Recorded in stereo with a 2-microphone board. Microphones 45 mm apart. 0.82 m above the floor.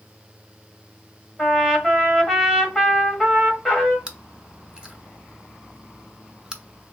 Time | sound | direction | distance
1.4 | a trumpet | 5° left (ahead or behind) | 1.6 m
4.1 | chewing | 20° right (ahead or behind) | 0.7 m